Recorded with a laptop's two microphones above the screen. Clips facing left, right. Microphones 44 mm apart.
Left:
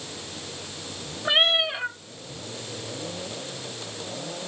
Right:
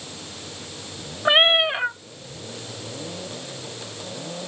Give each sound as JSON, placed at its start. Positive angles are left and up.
{"t": 1.2, "sound": "a cat meowing", "side_deg": -25, "distance_m": 0.5}